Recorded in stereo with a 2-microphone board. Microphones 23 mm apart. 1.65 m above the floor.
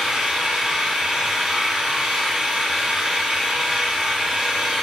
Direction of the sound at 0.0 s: 35° right (ahead or behind).